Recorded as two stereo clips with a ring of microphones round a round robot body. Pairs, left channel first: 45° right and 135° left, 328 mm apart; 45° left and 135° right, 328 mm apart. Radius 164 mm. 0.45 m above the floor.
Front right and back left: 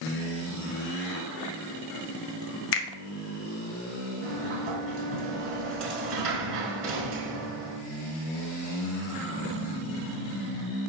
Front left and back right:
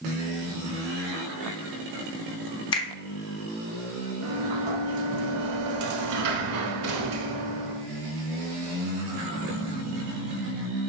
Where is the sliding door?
170° right, 1.0 m.